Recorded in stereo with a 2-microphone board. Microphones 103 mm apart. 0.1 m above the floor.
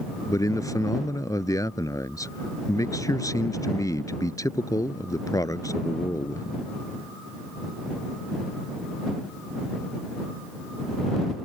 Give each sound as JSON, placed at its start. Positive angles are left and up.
{"t": 0.3, "sound": "a man speaking", "side_deg": 35}